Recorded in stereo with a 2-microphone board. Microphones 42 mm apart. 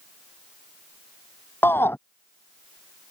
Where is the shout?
65° left (ahead or behind).